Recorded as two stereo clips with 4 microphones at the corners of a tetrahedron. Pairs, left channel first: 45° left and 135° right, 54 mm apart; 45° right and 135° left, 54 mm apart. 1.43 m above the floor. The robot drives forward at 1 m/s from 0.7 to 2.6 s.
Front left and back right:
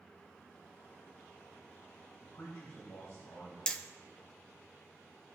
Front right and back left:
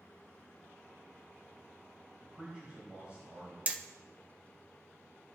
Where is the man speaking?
70° left, 4 m; by 3.6 s 75° left, 4 m.